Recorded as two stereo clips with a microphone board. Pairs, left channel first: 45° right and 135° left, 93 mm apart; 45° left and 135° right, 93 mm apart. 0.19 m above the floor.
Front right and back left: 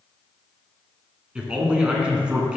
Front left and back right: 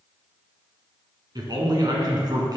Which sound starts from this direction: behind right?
A man speaking, at 1.4 s.